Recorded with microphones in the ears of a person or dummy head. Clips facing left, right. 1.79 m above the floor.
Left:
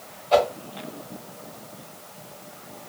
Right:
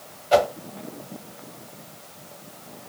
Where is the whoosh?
15° right (ahead or behind), 0.7 m.